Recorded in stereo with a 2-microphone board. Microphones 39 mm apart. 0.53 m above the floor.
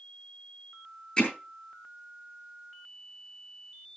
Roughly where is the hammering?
Left.